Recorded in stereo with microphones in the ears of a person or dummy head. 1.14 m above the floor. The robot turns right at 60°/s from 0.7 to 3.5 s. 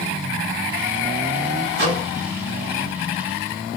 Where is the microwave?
60° right (ahead or behind), 1.9 m; by 2.1 s 75° right (ahead or behind), 1.9 m.